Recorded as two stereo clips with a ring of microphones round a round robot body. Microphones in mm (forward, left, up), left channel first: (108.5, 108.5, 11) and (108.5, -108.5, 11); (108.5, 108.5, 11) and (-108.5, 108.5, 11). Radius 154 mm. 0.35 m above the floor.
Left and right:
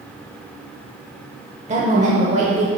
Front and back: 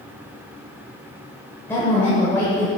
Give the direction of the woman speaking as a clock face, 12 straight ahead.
2 o'clock.